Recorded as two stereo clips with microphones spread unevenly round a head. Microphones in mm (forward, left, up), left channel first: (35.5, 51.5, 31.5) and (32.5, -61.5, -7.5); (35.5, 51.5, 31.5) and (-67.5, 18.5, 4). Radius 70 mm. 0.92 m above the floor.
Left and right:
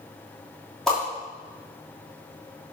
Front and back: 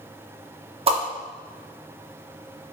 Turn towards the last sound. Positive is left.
turn(degrees=180)